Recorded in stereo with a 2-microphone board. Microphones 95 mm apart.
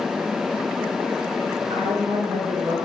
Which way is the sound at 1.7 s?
70° right (ahead or behind).